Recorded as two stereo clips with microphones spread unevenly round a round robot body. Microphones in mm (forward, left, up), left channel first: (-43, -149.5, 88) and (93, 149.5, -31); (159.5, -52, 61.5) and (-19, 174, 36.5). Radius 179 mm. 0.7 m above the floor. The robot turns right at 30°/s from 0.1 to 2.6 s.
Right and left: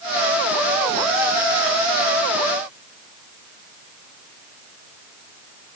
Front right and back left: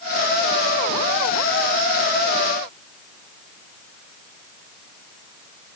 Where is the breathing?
I don't hear breathing.